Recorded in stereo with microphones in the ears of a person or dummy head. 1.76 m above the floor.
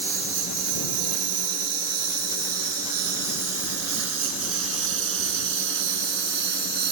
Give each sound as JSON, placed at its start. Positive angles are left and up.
{"t": 0.0, "sound": "a lawn mower", "side_deg": -70}